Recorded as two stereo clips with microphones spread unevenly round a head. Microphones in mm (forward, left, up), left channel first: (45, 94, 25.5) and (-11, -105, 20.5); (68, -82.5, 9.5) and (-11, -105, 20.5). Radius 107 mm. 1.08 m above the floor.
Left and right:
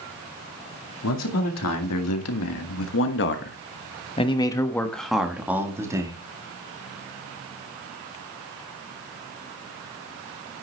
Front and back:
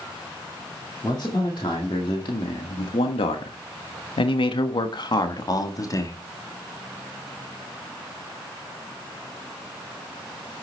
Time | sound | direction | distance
1.0 | a man speaking | 80° left | 2 m